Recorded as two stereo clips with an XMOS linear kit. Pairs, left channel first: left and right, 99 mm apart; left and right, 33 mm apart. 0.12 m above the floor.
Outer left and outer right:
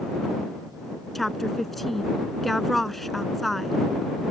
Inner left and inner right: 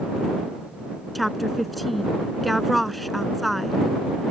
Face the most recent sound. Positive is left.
turn(degrees=0)  # may be behind; listen again after turning